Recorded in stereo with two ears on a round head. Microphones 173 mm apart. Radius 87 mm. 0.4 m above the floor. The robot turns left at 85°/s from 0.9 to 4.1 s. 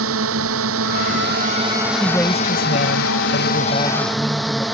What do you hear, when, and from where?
0.0 s a drone: 90° right; by 4.8 s straight ahead
2.0 s a woman speaking: 170° right; by 4.7 s 10° left